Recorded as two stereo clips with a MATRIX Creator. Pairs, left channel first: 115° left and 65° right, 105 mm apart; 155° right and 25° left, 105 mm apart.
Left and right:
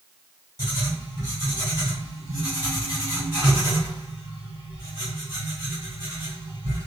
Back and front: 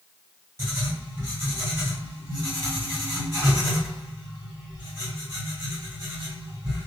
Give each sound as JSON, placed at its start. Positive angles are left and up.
{"t": 0.6, "sound": "writing", "azimuth_deg": -30, "distance_m": 1.9}